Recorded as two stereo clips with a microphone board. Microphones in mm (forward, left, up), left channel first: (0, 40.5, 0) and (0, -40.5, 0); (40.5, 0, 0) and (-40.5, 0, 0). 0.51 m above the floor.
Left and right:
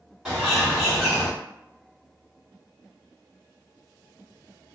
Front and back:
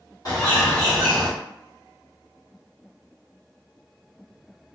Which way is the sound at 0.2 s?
10° right.